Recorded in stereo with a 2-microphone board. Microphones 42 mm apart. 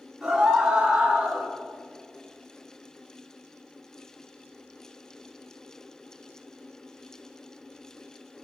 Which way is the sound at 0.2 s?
10° right (ahead or behind).